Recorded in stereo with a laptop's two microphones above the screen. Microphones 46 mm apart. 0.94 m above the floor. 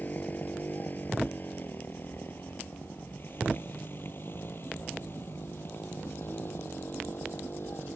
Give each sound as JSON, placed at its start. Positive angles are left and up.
{"t": 0.0, "sound": "a motorcycle", "side_deg": 40}